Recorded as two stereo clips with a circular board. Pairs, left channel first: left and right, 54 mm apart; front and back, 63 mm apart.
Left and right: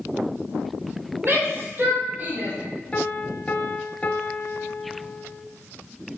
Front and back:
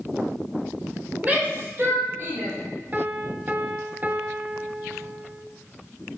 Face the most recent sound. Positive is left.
turn(degrees=140)